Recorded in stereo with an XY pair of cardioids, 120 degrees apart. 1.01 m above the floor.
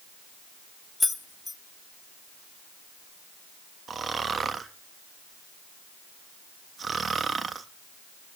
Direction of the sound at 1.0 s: 15° left.